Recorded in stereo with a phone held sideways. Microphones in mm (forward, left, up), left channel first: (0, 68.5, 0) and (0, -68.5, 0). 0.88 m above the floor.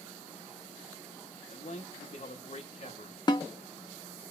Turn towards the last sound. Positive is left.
turn(degrees=30)  # may be behind; listen again after turning